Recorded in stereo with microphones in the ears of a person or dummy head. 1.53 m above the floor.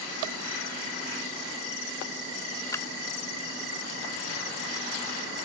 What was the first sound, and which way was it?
A clap, 15° left (ahead or behind).